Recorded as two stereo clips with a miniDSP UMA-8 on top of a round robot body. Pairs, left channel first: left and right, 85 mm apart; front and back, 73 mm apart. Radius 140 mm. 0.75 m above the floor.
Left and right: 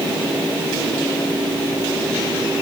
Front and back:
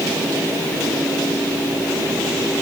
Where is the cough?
I don't hear a cough.